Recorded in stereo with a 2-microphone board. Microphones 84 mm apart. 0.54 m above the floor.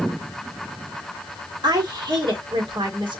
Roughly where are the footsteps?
I don't hear footsteps.